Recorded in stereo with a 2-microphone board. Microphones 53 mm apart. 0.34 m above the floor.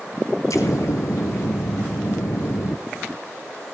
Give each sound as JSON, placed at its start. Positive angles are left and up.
{"t": 0.5, "sound": "an explosion", "side_deg": 80, "distance_m": 2.0}